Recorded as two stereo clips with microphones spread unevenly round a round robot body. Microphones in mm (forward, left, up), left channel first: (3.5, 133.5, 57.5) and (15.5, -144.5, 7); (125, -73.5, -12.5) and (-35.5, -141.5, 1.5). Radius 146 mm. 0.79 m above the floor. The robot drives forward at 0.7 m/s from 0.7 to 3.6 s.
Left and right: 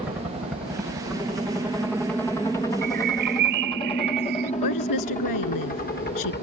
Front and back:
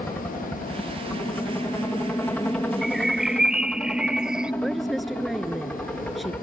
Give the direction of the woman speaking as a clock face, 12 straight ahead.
8 o'clock.